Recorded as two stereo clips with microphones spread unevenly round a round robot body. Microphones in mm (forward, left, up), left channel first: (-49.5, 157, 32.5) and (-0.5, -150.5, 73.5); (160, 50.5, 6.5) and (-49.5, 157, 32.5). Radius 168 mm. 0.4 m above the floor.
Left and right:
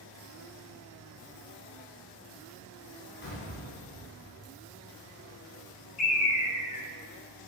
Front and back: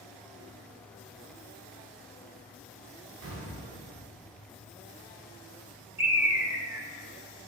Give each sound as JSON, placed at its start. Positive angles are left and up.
{"t": 3.2, "sound": "an explosion", "azimuth_deg": 150, "distance_m": 3.5}
{"t": 6.0, "sound": "a bird", "azimuth_deg": 75, "distance_m": 1.6}